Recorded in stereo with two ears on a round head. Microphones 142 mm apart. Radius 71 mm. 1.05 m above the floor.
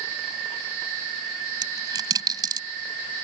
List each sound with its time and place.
1.6 s a dropped coin: 25° right (ahead or behind)